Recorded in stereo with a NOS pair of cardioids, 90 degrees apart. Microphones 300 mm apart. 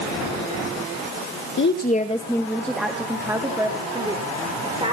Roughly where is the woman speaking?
Ahead left.